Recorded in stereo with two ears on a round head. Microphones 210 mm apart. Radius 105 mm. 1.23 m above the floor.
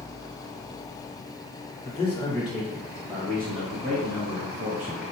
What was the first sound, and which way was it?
A man speaking, 30° left (ahead or behind).